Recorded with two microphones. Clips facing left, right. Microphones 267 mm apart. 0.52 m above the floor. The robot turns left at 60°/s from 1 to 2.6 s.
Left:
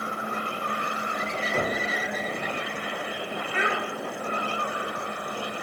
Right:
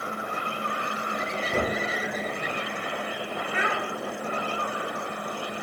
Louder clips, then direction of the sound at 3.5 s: Left 2 dB; 30° left (ahead or behind).